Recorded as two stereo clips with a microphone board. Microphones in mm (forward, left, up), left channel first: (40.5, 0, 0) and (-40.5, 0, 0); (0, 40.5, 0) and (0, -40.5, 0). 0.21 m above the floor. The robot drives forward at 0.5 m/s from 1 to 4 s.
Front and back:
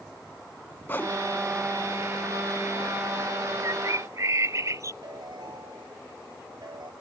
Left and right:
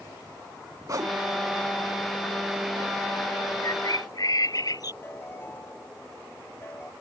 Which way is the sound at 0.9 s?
60° right.